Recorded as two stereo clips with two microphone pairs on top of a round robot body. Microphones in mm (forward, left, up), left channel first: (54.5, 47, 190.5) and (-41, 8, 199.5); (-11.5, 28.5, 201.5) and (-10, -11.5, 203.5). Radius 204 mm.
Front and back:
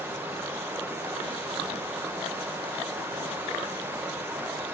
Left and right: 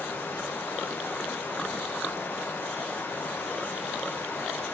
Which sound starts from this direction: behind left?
Running water, at 0.0 s.